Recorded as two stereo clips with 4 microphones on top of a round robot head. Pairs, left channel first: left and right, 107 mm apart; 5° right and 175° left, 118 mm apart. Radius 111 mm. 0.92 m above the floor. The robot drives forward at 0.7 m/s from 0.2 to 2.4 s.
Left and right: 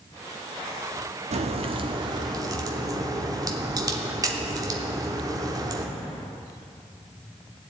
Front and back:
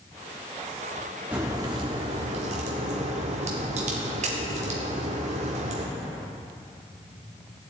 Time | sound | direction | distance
1.3 | a crack | 105° right | 0.7 m